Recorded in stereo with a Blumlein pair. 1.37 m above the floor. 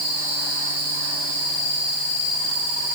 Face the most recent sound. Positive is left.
No sound to turn to.